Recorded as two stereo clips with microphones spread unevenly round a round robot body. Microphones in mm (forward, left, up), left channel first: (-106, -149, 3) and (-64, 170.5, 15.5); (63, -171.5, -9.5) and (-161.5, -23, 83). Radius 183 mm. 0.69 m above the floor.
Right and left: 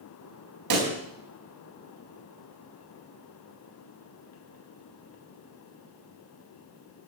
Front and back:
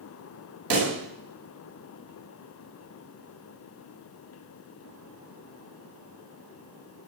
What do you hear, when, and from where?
0.7 s a pop: 105° left, 4.5 m